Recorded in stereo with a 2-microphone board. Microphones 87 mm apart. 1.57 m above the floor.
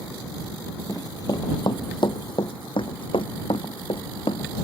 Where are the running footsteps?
45° left (ahead or behind); by 4.7 s 75° left (ahead or behind).